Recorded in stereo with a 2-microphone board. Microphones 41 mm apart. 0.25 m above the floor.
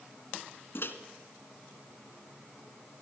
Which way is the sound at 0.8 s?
60° left (ahead or behind).